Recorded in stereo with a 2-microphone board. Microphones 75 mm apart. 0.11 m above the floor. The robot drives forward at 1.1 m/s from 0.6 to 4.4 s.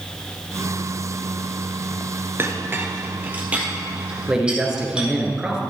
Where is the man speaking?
10° right (ahead or behind), 1.5 m.